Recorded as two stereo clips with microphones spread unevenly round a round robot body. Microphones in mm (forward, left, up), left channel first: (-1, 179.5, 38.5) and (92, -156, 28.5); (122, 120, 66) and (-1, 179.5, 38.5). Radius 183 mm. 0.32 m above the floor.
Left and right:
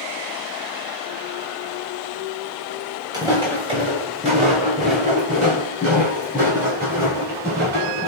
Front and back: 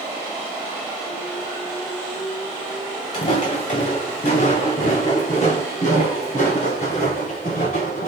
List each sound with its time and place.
3.1 s footsteps: 5° left, 2 m; by 8.1 s 10° right, 4.5 m